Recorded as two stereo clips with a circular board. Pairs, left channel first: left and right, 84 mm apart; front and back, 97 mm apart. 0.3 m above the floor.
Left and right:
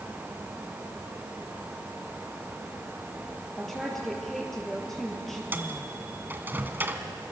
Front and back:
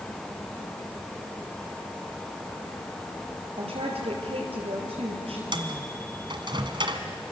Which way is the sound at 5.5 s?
155° right.